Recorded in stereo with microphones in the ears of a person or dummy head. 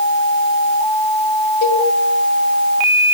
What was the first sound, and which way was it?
A cowbell, 55° left (ahead or behind).